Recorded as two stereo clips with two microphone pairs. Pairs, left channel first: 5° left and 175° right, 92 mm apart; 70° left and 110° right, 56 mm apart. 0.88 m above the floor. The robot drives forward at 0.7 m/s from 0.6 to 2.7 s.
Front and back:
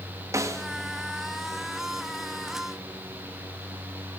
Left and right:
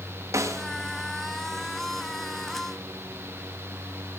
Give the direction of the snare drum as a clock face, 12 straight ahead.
4 o'clock.